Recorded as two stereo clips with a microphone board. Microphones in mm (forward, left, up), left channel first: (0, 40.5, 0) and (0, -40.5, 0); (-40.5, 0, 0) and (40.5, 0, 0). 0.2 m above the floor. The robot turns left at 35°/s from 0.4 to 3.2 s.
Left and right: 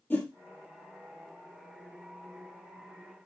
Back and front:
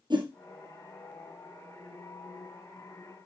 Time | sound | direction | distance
0.1 | a whoosh | 15° left | 2.5 m